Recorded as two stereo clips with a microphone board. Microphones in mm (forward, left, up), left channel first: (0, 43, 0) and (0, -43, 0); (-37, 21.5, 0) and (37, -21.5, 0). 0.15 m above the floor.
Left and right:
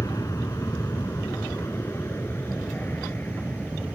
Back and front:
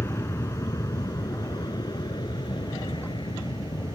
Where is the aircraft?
110° left; by 4.0 s 160° left.